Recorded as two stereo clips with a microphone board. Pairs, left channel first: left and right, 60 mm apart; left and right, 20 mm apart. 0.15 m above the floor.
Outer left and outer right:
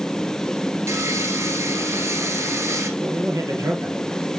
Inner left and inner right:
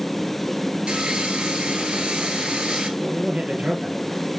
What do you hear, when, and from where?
0.9 s sawing: 55° right (ahead or behind), 1.4 m
3.0 s a man speaking: 65° right (ahead or behind), 3 m